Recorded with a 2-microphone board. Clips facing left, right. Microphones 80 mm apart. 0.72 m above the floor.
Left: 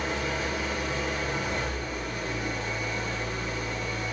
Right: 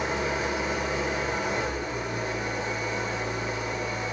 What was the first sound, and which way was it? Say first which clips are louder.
An engine running: right 2 dB; 25° right (ahead or behind).